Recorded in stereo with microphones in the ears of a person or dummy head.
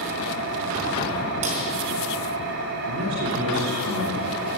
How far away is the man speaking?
About 4 m.